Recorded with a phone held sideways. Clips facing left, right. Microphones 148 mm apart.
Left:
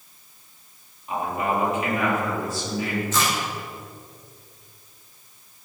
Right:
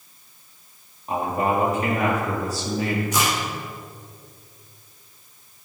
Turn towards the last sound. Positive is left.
turn(degrees=-15)  # may be behind; listen again after turning